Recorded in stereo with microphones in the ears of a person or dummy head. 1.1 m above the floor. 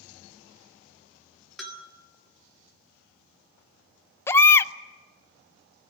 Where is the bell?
Centre (ahead or behind), 2 m.